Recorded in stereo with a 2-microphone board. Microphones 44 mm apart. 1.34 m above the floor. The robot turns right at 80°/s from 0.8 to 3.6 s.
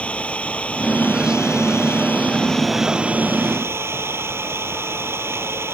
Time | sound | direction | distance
0.0 | an engine running | 30° left | ?